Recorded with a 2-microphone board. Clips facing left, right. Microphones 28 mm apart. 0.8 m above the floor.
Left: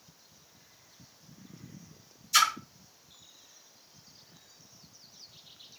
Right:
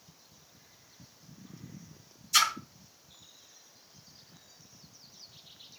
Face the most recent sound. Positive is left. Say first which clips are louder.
# left 1 dB
turn(degrees=0)  # may be behind; listen again after turning